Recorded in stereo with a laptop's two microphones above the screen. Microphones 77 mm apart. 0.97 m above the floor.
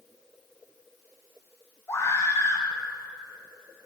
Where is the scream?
35° left (ahead or behind), 3 m.